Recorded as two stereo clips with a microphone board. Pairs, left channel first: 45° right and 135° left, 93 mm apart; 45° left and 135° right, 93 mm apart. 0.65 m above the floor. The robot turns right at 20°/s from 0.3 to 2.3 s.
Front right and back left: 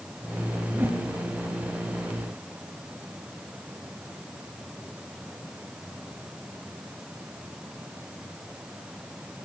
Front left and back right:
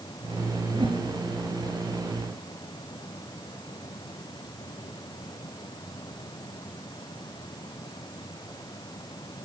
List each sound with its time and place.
0.7 s a whoosh: 155° right, 4 m; by 1.0 s 150° right, 4 m